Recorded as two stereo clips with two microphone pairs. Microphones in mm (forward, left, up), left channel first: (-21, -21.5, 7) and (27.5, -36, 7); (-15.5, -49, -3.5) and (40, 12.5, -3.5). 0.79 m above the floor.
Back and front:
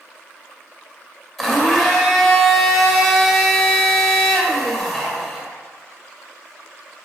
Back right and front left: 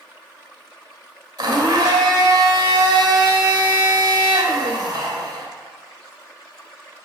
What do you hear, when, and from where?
1.4 s a blender: 75° left, 2.5 m